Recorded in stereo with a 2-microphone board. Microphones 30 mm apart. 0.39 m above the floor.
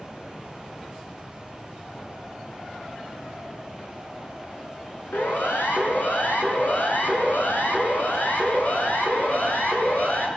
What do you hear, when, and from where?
5.1 s a siren: 75° left (ahead or behind), 8 m; by 10.3 s 55° left (ahead or behind), 9 m